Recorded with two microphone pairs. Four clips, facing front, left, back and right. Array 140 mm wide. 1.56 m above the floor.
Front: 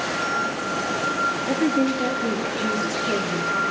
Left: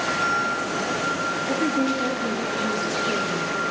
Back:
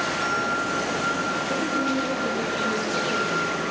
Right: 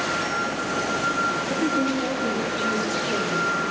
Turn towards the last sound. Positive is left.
turn(degrees=10)